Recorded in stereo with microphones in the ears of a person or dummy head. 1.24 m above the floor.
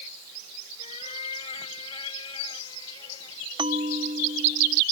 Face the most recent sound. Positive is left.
turn(degrees=-30)  # may be behind; listen again after turning